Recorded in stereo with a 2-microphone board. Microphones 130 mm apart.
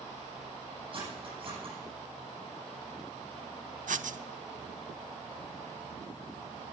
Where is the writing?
80° right, 0.6 m.